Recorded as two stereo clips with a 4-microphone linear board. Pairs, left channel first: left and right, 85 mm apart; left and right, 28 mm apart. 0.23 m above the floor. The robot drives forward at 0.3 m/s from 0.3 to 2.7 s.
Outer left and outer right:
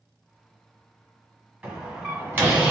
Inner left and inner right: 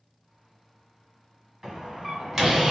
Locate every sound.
1.6 s a door slam: 20° right (ahead or behind), 1.5 m; by 2.7 s 25° right (ahead or behind), 1.3 m